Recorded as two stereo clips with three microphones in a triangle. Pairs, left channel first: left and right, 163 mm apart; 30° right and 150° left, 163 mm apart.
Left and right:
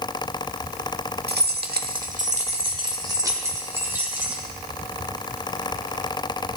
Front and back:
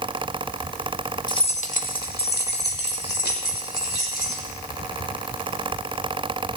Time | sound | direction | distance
1.3 | keys jangling | 95° right | 1.3 m